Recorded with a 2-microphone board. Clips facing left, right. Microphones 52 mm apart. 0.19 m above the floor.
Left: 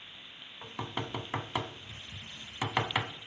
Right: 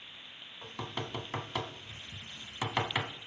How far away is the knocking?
About 0.8 m.